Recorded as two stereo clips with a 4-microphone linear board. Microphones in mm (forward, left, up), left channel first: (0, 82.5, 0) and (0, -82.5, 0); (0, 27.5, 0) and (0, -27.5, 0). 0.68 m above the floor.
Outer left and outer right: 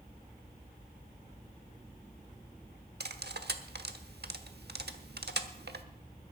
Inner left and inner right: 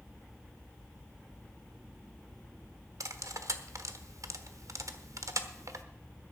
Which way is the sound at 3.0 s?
80° right.